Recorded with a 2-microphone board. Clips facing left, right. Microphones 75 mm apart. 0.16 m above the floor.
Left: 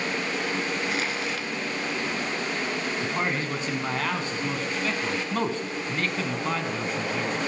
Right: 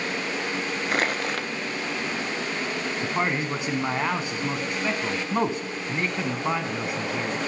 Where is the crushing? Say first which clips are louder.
Right 3 dB; 55° right (ahead or behind), 0.6 m.